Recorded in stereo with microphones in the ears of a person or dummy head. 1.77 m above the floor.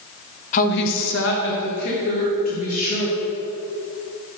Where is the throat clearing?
I don't hear throat clearing.